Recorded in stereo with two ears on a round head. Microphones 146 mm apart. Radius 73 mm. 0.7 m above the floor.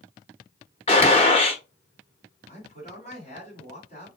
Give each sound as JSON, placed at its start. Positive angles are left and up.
{"t": 0.9, "sound": "a gunshot", "side_deg": 35, "distance_m": 0.7}
{"t": 2.5, "sound": "a man speaking", "side_deg": 40, "distance_m": 1.9}